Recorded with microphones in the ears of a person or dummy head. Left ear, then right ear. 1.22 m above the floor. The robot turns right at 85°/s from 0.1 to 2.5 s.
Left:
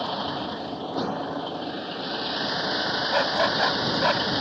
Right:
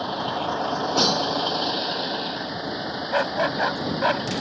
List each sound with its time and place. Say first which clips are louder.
0.0 s a vehicle: right 2 dB; 175° left; by 4.4 s 20° left
3.1 s a dog barking: right 1 dB; centre (ahead or behind)